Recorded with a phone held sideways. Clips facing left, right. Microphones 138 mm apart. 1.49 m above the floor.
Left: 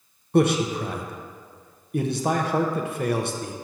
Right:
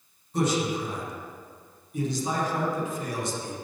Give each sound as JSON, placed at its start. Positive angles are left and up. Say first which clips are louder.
{"t": 0.3, "sound": "a man speaking", "louder": "left 6 dB", "side_deg": 65, "distance_m": 0.7}